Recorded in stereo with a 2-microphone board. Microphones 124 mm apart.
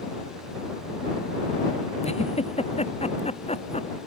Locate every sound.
2.0 s a giggle: 60° left (ahead or behind)